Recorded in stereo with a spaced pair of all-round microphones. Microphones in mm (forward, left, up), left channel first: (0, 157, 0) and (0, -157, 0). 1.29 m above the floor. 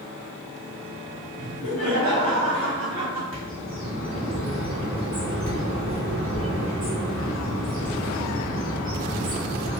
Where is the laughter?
60° right (ahead or behind), 1.6 m.